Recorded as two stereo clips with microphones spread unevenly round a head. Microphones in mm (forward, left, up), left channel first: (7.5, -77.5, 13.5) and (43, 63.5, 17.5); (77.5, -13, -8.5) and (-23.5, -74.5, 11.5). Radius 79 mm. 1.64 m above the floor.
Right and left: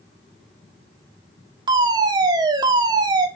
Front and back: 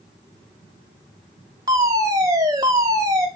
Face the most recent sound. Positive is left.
turn(degrees=140)